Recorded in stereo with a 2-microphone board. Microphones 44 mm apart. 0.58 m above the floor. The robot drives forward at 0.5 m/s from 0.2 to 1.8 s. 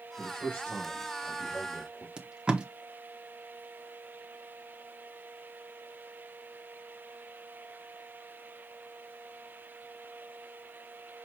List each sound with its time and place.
0.2 s a man speaking: 55° left (ahead or behind), 1.8 m; by 2.1 s 65° left (ahead or behind), 1.6 m
2.2 s tape being pulled: 20° right (ahead or behind), 0.9 m